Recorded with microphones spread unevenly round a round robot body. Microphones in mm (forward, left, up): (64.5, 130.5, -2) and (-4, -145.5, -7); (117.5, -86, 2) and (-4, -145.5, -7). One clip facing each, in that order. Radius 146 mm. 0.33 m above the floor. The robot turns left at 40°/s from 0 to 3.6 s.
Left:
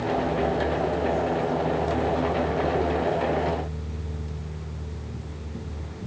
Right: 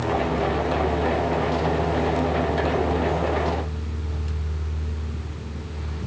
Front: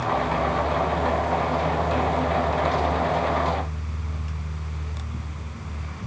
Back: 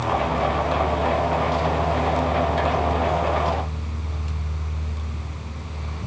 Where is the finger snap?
I don't hear a finger snap.